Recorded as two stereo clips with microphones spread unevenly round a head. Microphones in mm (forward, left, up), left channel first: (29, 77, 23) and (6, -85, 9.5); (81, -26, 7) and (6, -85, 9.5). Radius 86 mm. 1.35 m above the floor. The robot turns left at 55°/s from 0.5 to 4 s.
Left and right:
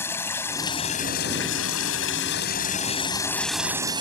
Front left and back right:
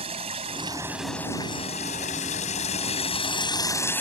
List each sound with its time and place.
0.0 s running water: 160° left; by 4.0 s 35° right